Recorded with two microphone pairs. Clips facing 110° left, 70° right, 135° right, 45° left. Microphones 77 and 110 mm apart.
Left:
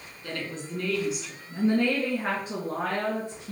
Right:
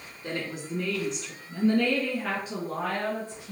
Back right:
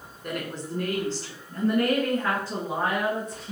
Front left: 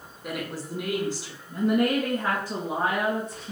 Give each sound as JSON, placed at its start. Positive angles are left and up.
{"t": 0.2, "sound": "a woman speaking", "azimuth_deg": -35, "distance_m": 1.2}